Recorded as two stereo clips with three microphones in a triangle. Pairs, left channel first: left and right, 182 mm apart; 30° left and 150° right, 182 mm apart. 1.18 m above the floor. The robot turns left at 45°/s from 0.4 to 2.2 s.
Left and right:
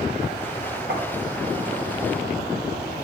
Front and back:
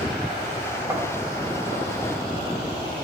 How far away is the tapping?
About 1.2 m.